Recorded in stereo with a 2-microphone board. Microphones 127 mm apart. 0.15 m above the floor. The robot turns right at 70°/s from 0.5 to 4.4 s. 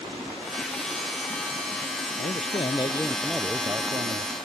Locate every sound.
2.2 s a man speaking: 100° left; by 4.3 s 110° right